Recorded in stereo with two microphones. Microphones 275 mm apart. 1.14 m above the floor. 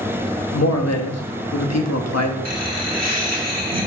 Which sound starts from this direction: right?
Laughter, at 2.5 s.